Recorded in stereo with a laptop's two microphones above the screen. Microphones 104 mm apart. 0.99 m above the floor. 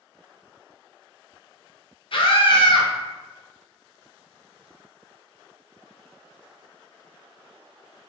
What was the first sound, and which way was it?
A scream, 55° left (ahead or behind).